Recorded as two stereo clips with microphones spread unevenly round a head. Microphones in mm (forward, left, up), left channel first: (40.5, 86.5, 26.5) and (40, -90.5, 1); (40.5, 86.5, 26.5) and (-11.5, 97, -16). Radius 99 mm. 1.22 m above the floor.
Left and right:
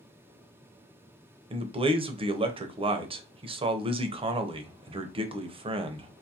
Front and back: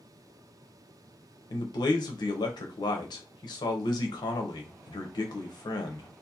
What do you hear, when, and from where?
1.5 s a man speaking: 35° right, 0.5 m